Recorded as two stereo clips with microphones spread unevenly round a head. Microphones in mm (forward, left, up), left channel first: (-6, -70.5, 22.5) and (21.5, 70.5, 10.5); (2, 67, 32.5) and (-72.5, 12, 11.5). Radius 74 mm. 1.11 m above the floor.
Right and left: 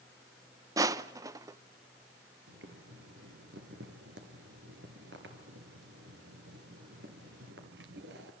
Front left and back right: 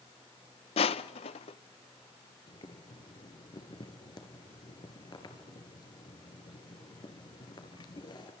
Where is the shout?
I don't hear a shout.